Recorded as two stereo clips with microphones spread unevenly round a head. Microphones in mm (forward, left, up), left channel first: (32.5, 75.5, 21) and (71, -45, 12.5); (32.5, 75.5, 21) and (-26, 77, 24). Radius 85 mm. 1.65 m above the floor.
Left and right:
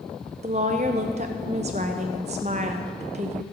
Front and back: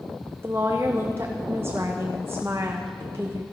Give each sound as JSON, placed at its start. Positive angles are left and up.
{"t": 0.4, "sound": "a woman speaking", "azimuth_deg": -120, "distance_m": 0.7}